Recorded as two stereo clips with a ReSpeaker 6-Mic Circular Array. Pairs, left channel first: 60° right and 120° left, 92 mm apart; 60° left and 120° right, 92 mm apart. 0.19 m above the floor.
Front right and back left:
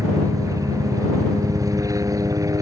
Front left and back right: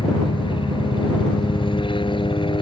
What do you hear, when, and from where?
0.0 s a helicopter: 70° left